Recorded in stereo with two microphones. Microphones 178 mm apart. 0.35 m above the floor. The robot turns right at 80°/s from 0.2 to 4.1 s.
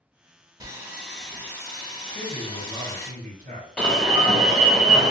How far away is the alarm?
About 0.6 m.